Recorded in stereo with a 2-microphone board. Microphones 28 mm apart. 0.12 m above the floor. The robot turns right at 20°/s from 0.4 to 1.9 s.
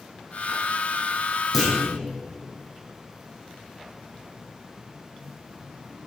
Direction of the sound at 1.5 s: Centre (ahead or behind).